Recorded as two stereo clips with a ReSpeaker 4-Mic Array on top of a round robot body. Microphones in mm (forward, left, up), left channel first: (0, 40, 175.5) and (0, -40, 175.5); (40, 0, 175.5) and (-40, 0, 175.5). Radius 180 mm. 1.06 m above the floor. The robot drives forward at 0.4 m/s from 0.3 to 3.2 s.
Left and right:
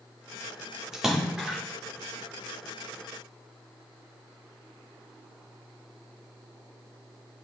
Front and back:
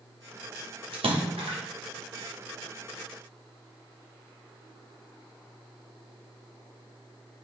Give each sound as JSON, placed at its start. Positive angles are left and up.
{"t": 0.9, "sound": "a splash", "azimuth_deg": -175, "distance_m": 1.6}